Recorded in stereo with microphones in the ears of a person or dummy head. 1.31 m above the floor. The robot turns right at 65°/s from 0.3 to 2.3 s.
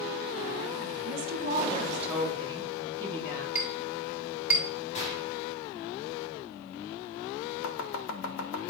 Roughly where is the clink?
Centre.